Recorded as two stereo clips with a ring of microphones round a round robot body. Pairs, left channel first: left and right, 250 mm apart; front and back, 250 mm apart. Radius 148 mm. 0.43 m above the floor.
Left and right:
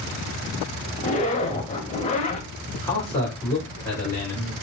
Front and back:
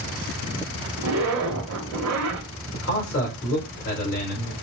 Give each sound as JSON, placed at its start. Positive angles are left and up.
{"t": 1.0, "sound": "a zipper", "azimuth_deg": 155, "distance_m": 1.0}
{"t": 2.7, "sound": "a man speaking", "azimuth_deg": 15, "distance_m": 1.9}